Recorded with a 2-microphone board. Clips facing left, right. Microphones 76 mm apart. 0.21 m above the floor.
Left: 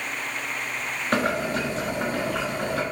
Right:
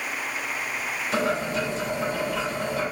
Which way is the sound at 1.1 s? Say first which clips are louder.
Left 1 dB; 55° left (ahead or behind).